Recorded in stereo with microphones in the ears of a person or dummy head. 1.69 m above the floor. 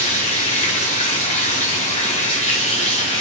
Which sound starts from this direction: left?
Running water, at 0.0 s.